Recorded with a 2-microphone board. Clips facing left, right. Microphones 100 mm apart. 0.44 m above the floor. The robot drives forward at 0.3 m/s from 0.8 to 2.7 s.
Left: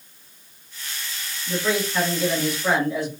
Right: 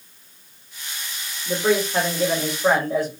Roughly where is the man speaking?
Right.